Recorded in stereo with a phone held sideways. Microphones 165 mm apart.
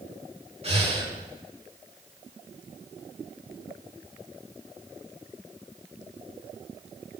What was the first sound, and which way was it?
Breathing, 40° right (ahead or behind).